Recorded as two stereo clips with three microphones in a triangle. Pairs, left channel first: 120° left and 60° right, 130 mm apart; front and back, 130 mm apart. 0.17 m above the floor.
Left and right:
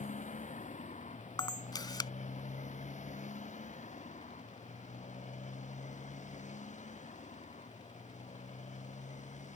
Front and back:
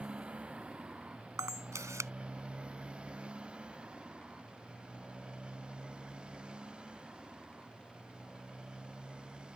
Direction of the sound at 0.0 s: 100° left.